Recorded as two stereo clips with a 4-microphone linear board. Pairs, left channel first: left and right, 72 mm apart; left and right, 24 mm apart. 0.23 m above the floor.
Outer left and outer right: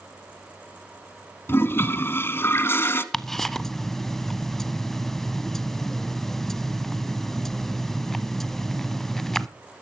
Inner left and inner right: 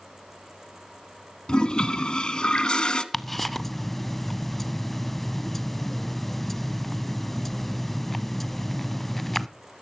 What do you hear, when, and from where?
1.5 s a toilet flushing: 35° left (ahead or behind), 1.1 m
3.1 s ticking: 5° left (ahead or behind), 0.6 m